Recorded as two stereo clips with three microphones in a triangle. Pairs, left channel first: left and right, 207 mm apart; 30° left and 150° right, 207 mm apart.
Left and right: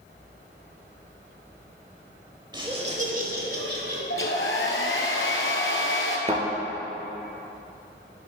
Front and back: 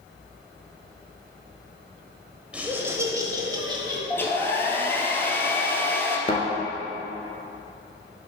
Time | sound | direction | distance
2.5 | laughter | 75° right | 0.9 m
4.1 | a hair dryer | 110° left | 1.1 m
6.3 | a thud | 30° right | 1.5 m